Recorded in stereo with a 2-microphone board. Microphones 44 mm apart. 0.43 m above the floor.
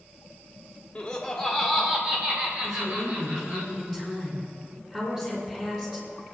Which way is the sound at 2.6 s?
10° right (ahead or behind).